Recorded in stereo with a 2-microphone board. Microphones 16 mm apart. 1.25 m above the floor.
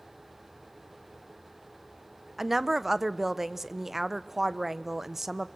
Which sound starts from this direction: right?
A woman speaking, at 2.4 s.